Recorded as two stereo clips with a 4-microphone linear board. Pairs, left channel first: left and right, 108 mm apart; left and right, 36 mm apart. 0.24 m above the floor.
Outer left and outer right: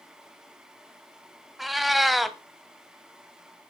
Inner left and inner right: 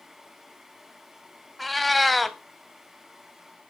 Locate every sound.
1.6 s a cat meowing: centre (ahead or behind), 0.6 m